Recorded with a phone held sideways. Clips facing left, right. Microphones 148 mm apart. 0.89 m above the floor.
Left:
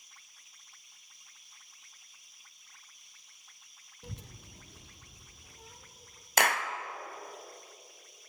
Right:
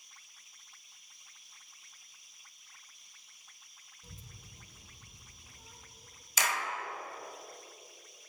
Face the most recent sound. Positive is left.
turn(degrees=65)  # may be behind; listen again after turning